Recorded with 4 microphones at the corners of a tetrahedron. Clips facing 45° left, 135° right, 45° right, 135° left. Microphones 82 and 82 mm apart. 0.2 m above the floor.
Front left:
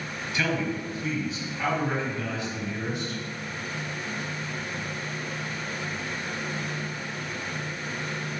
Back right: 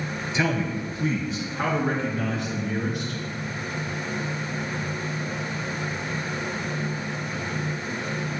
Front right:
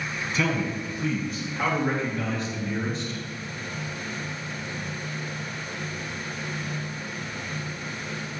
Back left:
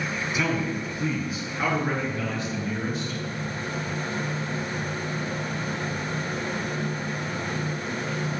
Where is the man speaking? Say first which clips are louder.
Back right 2 dB, front right 1 dB; 165° right, 1.0 m; by 3.2 s 140° right, 3 m.